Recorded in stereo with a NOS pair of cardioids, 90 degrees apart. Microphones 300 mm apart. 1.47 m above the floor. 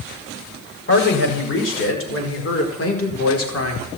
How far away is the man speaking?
About 6.5 m.